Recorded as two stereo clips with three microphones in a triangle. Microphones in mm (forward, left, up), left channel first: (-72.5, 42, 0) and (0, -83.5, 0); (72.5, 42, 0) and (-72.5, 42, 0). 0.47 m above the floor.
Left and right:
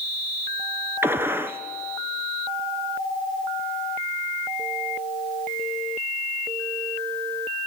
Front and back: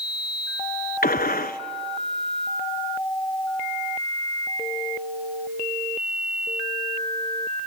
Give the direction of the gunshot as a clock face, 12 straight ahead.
12 o'clock.